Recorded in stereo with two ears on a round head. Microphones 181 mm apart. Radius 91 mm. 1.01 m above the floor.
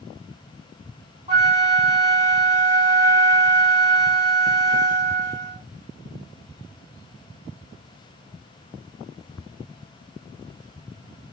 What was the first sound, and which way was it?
A flute, 25° right (ahead or behind).